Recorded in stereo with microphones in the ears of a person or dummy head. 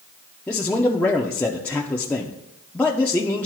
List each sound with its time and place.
0.5 s a man speaking: 10° left (ahead or behind), 0.6 m